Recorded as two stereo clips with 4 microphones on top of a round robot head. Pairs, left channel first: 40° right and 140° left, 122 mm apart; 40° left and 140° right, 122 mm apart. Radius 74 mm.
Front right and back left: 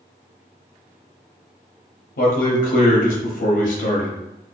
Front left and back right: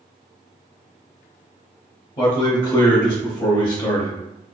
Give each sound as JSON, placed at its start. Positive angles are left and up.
{"t": 2.2, "sound": "a man speaking", "azimuth_deg": -20, "distance_m": 0.7}